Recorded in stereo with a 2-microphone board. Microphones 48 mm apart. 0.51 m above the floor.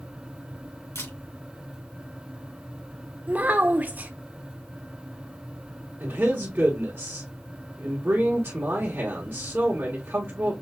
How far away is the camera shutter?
About 2.5 m.